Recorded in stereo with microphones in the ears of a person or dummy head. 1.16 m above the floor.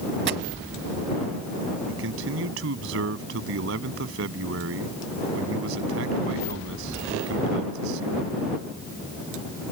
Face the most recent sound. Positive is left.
turn(degrees=-70)  # may be behind; listen again after turning